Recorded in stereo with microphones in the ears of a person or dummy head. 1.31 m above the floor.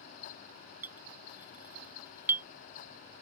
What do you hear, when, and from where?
0.8 s a clink: 15° right (ahead or behind)